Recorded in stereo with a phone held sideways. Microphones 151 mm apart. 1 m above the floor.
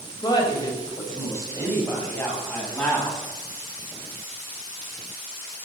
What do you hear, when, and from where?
0.2 s a woman speaking: 30° left (ahead or behind), 4.5 m; by 3.2 s 10° left (ahead or behind), 7 m